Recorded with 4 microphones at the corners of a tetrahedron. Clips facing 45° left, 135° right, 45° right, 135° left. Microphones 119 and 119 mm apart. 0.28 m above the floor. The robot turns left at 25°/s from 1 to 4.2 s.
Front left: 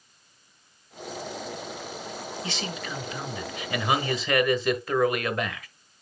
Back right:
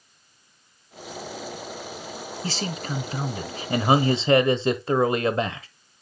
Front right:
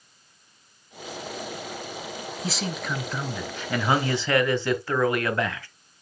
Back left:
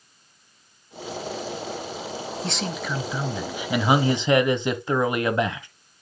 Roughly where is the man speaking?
Behind right.